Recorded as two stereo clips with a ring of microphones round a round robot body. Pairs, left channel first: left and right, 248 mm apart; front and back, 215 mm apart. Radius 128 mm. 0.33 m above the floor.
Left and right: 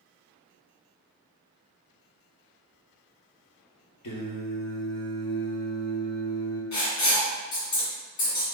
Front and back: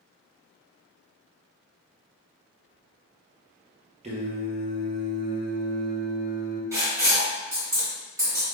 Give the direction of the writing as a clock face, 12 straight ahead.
9 o'clock.